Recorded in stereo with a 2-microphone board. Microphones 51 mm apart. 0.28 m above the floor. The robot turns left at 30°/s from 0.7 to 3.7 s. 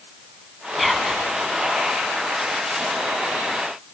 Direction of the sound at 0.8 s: Centre (ahead or behind).